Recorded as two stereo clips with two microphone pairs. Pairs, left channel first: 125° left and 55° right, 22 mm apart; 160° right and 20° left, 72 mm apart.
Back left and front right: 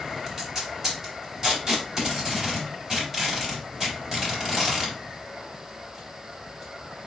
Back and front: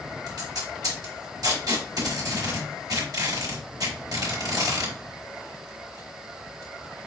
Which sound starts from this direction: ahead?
Tape being pulled, at 0.3 s.